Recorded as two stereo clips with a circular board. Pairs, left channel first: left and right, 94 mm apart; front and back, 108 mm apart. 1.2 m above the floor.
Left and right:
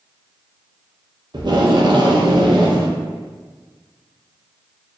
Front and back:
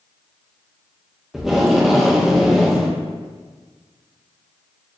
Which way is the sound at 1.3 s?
95° right.